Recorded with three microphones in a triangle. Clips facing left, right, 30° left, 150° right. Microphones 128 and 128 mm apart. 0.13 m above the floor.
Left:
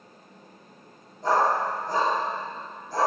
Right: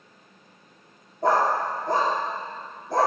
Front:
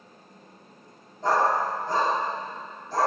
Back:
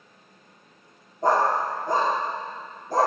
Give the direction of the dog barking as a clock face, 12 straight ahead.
4 o'clock.